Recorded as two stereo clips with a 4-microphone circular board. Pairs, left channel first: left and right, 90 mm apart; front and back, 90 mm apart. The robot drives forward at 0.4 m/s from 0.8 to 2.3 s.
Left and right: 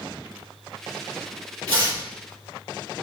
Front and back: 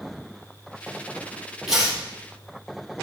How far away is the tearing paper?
About 4.5 m.